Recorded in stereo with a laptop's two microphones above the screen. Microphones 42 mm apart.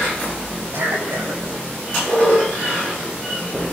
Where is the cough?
65° right (ahead or behind), 6.5 m.